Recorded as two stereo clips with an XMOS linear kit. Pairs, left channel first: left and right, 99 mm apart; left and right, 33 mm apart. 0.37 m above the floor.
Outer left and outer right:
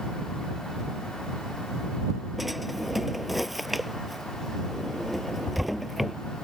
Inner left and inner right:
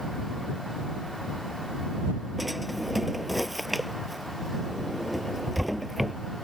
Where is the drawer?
Centre (ahead or behind).